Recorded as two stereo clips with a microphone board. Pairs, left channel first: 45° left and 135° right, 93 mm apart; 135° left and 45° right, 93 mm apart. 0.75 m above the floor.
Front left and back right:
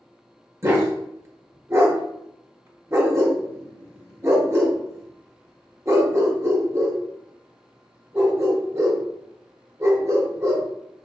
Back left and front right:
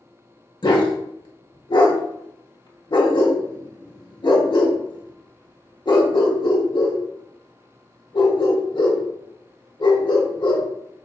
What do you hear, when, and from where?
0.6 s a dog barking: 170° left, 0.8 m